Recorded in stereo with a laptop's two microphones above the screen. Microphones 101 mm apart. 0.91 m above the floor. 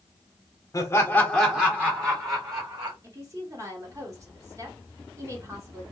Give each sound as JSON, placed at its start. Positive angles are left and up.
{"t": 0.7, "sound": "laughter", "side_deg": 30, "distance_m": 0.9}
{"t": 3.0, "sound": "a woman speaking", "side_deg": -30, "distance_m": 1.2}